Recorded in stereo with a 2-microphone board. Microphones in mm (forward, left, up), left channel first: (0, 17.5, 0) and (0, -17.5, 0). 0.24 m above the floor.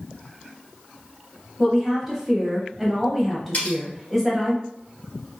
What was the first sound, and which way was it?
A woman speaking, centre (ahead or behind).